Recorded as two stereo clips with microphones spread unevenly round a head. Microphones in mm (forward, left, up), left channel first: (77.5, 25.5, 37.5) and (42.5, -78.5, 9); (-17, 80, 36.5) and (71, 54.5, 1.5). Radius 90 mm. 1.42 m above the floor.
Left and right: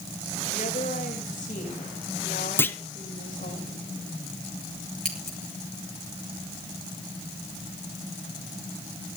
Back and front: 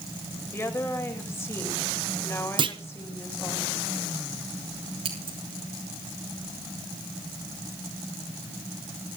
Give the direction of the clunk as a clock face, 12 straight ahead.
12 o'clock.